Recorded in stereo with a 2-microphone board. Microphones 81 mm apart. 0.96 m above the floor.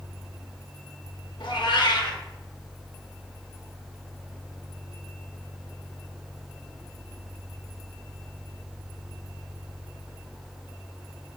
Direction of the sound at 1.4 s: 70° left (ahead or behind).